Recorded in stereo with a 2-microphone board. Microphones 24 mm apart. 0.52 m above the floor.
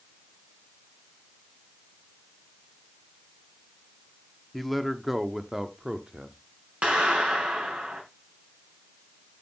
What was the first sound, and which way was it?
A man speaking, 5° left (ahead or behind).